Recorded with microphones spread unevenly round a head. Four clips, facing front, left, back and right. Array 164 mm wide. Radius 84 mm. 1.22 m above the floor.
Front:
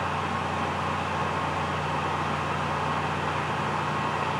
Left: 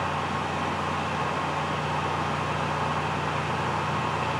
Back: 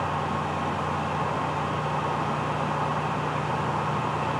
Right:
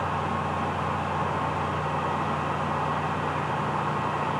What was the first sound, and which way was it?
Only background noise.